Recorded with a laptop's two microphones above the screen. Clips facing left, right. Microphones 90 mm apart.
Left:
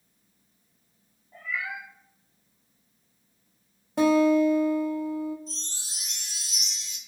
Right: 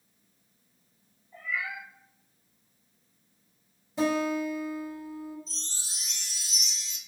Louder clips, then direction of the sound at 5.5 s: Left 3 dB; 60° left (ahead or behind).